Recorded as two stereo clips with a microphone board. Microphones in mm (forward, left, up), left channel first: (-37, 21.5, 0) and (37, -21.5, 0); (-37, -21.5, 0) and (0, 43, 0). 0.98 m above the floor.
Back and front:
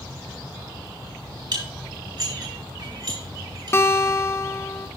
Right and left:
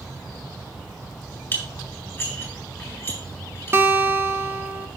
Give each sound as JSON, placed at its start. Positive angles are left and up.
{"t": 1.5, "sound": "dishes clattering", "azimuth_deg": -55, "distance_m": 4.5}
{"t": 3.7, "sound": "a guitar", "azimuth_deg": 105, "distance_m": 0.9}